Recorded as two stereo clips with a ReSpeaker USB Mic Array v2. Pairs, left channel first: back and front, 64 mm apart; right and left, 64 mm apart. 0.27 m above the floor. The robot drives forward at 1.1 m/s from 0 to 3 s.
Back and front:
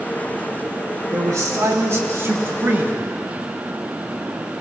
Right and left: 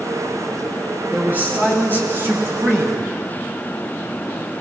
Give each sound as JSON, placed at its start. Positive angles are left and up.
{"t": 1.1, "sound": "a man speaking", "azimuth_deg": 30, "distance_m": 4.0}